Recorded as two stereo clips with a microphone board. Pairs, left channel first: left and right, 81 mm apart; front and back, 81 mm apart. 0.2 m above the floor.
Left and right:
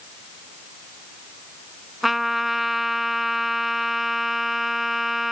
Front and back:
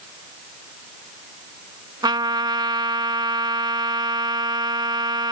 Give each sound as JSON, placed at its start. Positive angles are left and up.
{"t": 2.0, "sound": "a trumpet", "azimuth_deg": -175}